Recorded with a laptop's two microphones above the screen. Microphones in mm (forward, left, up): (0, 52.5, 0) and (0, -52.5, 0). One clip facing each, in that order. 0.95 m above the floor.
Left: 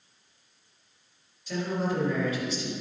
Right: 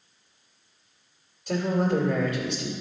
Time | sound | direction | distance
1.5 | a man speaking | 70° right (ahead or behind) | 2 m